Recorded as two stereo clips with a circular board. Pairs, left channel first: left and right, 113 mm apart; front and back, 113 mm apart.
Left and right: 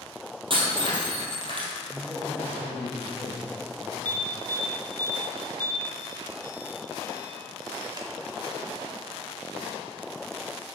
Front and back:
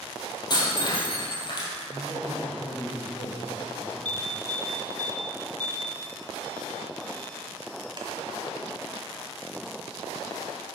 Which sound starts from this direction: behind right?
An alarm, at 4.0 s.